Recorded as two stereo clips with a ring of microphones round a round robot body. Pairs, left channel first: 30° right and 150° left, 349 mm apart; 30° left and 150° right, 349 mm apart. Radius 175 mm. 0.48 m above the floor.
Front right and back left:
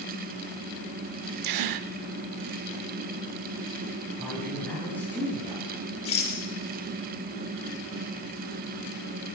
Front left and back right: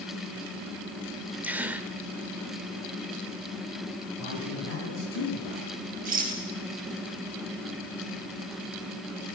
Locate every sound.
1.4 s a gasp: 125° left, 0.8 m
4.2 s a man speaking: 55° left, 9.5 m
6.0 s a rattle: 80° right, 7 m